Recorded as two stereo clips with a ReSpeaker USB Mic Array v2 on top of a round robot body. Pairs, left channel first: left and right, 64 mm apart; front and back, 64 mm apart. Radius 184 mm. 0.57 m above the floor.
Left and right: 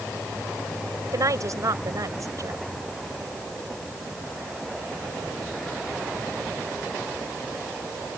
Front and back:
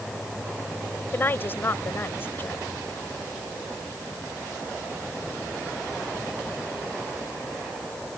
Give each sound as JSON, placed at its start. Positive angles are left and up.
{"t": 1.1, "sound": "a woman speaking", "azimuth_deg": -60}